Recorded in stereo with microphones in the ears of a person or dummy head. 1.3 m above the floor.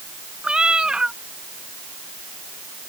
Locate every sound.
0.4 s a cat meowing: 5° right (ahead or behind)